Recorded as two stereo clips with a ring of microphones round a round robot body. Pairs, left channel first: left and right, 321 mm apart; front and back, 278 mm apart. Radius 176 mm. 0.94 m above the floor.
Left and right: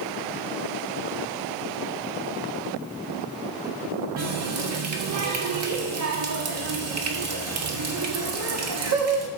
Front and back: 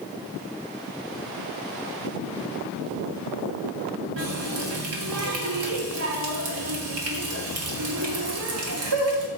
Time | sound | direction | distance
4.2 | a running tap | 135° right | 1.5 m